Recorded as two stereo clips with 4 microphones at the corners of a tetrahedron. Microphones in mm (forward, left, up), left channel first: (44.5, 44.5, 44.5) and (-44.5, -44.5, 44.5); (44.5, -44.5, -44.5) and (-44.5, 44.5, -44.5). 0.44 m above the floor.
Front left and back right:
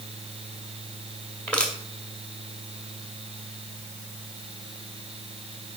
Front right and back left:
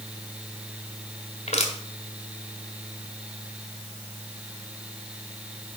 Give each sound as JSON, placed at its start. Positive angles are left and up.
{"t": 1.5, "sound": "crushing", "azimuth_deg": -35, "distance_m": 2.0}